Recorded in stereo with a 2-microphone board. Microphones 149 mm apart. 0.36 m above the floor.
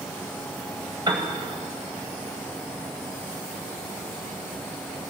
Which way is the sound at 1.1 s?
30° right (ahead or behind).